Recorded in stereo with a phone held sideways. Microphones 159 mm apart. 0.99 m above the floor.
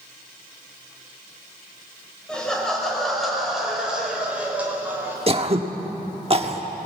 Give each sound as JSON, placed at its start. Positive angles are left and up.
{"t": 2.3, "sound": "laughter", "side_deg": 5, "distance_m": 6.0}
{"t": 5.3, "sound": "throat clearing", "side_deg": -40, "distance_m": 1.2}